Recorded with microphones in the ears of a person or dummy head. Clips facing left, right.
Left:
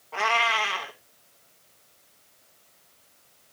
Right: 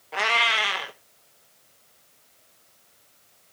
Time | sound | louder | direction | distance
0.1 | a cat meowing | left 1 dB | 20° right (ahead or behind) | 1.1 m